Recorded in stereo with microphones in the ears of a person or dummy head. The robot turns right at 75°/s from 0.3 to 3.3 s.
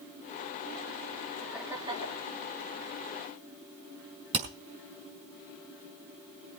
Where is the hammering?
30° right (ahead or behind), 5 m.